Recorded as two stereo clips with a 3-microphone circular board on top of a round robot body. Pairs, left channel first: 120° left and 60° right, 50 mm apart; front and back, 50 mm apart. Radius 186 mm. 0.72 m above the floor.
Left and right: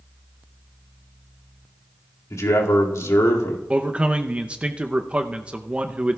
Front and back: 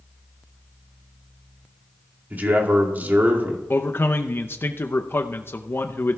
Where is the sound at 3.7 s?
Straight ahead, 0.8 m.